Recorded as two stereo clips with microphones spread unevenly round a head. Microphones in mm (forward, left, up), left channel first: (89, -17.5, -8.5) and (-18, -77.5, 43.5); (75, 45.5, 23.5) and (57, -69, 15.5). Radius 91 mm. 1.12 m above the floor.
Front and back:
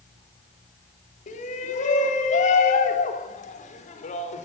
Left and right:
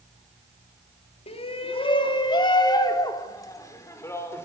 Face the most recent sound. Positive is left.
turn(degrees=10)